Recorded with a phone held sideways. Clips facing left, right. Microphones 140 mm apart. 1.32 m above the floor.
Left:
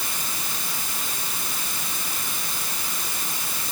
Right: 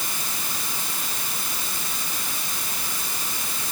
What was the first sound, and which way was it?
Only background noise.